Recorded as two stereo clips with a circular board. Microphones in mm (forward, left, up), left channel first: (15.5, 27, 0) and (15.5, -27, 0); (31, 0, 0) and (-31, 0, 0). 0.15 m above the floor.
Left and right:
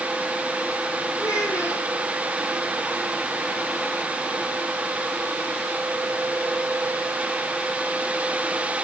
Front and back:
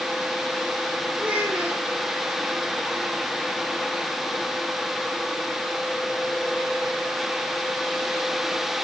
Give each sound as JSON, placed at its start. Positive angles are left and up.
{"t": 1.2, "sound": "a child speaking", "azimuth_deg": 115, "distance_m": 3.0}